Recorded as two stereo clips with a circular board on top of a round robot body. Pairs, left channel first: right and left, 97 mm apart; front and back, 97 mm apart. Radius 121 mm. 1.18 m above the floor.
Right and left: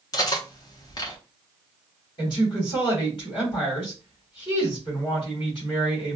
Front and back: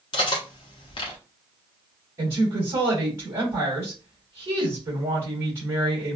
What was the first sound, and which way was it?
Cutlery clinking, 40° right.